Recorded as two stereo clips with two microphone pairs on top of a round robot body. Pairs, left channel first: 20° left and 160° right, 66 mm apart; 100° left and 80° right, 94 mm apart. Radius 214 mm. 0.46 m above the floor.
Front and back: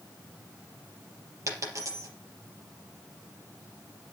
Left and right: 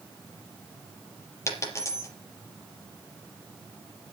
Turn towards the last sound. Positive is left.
turn(degrees=160)